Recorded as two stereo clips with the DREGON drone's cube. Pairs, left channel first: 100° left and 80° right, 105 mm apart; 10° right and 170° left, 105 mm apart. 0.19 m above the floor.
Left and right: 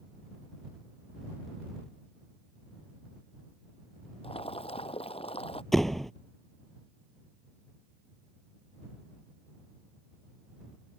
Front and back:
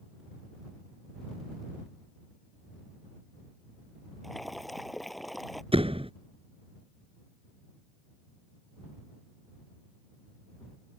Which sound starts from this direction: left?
Boiling, at 4.2 s.